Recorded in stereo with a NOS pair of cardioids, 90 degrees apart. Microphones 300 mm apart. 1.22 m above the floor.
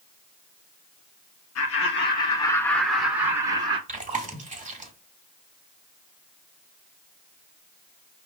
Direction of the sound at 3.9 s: 25° right.